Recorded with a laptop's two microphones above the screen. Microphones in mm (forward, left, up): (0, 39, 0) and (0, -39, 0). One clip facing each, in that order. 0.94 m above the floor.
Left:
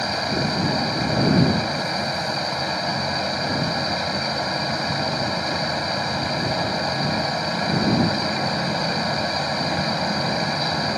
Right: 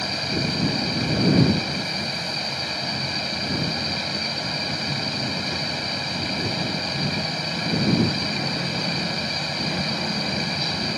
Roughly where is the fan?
Left.